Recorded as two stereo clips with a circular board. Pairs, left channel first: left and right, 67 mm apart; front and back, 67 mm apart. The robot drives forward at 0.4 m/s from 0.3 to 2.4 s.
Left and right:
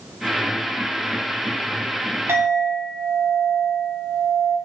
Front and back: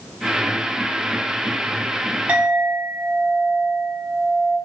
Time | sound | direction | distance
2.3 | a clink | 120° right | 0.5 m